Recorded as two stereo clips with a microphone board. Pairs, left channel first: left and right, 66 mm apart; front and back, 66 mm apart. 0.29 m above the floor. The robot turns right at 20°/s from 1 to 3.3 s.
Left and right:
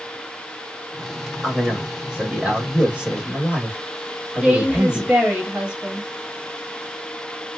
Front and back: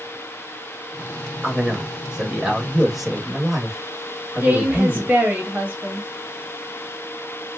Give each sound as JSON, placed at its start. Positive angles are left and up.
{"t": 1.4, "sound": "a man speaking", "azimuth_deg": -135, "distance_m": 0.9}
{"t": 4.4, "sound": "a woman speaking", "azimuth_deg": -145, "distance_m": 1.3}